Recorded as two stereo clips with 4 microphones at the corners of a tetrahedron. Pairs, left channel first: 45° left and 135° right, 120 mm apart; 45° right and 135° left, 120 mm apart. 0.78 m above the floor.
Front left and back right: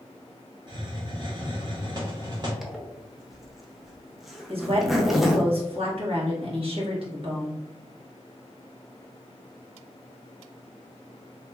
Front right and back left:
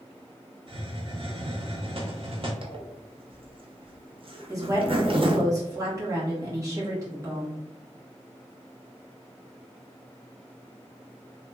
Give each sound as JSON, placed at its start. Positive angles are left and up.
{"t": 0.7, "sound": "a hiss", "azimuth_deg": 175, "distance_m": 1.0}
{"t": 2.6, "sound": "a zipper", "azimuth_deg": 135, "distance_m": 0.6}
{"t": 4.5, "sound": "a woman speaking", "azimuth_deg": -165, "distance_m": 1.5}